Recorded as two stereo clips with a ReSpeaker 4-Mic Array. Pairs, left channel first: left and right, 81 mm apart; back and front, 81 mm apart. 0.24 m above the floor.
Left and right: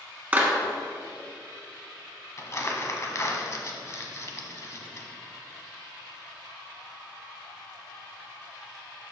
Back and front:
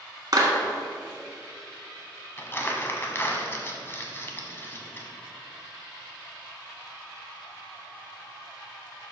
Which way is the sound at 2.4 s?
130° left.